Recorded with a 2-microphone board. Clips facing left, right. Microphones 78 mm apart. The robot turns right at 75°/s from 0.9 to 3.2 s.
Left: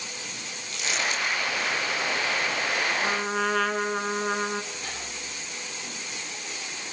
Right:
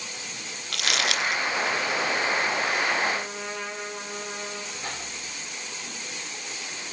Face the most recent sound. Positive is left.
turn(degrees=-30)  # may be behind; listen again after turning